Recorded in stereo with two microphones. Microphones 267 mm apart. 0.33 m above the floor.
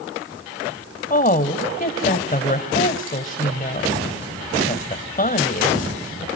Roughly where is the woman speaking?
Left.